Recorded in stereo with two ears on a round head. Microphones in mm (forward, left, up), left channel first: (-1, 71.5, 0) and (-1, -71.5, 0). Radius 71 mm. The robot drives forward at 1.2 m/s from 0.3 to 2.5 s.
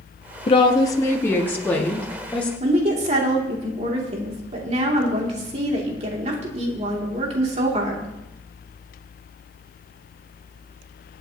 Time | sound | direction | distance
0.5 | a woman speaking | 40° left (ahead or behind) | 0.7 m
2.6 | a woman speaking | 45° right (ahead or behind) | 2.5 m